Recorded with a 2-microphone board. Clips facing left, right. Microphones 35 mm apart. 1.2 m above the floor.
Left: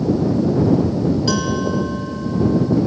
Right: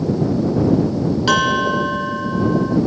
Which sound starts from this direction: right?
A bell, at 1.3 s.